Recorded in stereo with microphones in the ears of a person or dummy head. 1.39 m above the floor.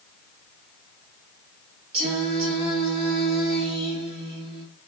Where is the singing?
35° right (ahead or behind), 1.5 m.